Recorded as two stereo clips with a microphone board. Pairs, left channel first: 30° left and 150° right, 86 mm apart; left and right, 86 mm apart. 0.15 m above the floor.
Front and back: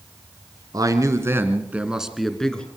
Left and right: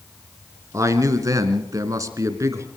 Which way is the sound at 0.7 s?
130° right.